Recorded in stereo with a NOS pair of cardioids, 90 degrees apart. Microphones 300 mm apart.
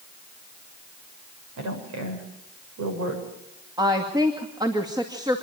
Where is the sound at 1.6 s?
70° right, 7.5 m.